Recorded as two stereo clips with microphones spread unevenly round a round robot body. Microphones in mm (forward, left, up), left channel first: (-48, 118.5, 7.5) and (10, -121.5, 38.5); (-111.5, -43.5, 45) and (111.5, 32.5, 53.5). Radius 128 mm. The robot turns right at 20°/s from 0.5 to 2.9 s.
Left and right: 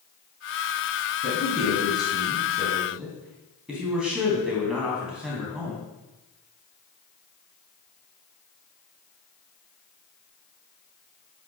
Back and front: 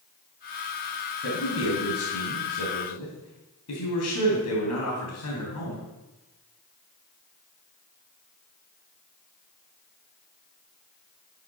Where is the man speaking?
160° left, 3 m; by 5.9 s 165° right, 3 m.